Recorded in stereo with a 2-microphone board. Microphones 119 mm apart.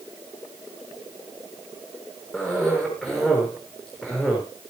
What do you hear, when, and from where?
2.3 s a cough: 5° left (ahead or behind), 4 m